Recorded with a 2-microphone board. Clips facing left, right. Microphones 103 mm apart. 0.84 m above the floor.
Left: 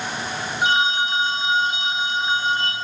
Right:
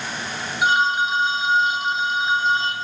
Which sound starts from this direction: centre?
A phone ringing, at 0.6 s.